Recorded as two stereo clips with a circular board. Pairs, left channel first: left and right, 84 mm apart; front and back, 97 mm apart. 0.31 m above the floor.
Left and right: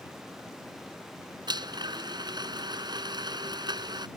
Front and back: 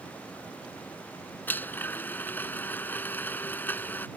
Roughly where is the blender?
Right.